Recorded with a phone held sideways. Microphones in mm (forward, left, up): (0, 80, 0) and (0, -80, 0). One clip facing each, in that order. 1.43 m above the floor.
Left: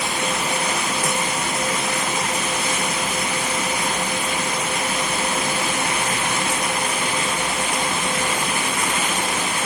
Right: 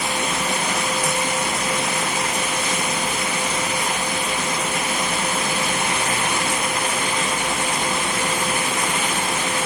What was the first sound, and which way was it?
Only background noise.